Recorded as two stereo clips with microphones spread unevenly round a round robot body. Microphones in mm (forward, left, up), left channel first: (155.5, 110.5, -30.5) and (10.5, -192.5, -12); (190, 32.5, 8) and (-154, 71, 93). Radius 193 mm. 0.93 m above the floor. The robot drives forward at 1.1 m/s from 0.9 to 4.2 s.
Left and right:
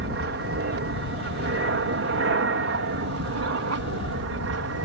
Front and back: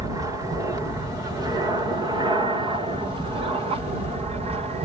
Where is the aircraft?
95° right; by 4.9 s 105° right.